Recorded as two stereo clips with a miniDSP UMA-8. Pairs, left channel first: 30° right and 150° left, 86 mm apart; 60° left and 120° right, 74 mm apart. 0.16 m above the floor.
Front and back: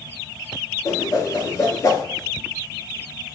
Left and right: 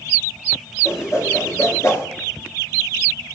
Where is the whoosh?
15° left, 0.5 m.